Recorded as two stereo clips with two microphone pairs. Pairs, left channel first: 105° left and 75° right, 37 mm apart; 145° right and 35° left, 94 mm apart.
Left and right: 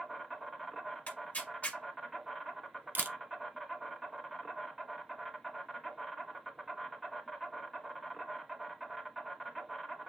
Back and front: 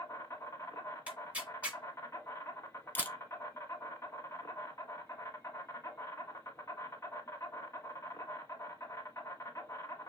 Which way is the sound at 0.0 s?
150° right.